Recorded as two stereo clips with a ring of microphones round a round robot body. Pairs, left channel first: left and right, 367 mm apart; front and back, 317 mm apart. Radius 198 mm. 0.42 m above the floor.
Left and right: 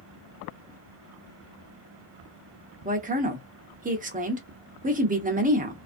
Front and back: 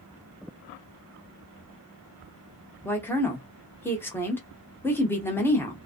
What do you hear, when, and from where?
2.9 s a woman speaking: 70° right, 0.8 m